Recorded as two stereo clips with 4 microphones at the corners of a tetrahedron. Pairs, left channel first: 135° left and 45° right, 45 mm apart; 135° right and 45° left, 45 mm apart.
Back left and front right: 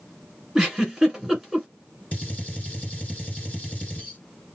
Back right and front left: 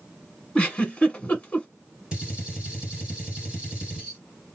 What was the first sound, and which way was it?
A giggle, 130° right.